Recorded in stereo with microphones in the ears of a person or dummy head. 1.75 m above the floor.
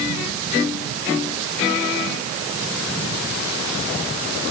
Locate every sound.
Only background noise.